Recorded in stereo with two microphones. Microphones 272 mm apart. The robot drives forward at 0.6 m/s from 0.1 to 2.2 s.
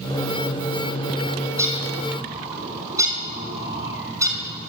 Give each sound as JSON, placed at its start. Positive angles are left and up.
{"t": 1.6, "sound": "a bird", "side_deg": -10, "distance_m": 6.5}